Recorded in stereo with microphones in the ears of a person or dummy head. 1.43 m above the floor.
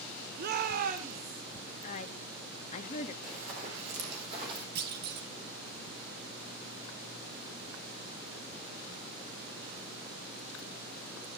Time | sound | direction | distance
0.4 | a shout | 60° right (ahead or behind) | 1.0 m
1.8 | a woman speaking | 45° left (ahead or behind) | 1.7 m
3.2 | running footsteps | 40° right (ahead or behind) | 5 m
4.8 | a clunk | 55° right (ahead or behind) | 2 m